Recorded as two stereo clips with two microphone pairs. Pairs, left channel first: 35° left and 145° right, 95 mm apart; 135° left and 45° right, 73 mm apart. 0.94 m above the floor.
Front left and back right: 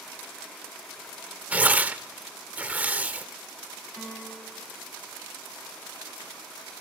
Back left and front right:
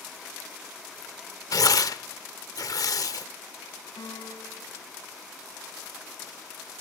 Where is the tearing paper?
145° left, 0.9 m.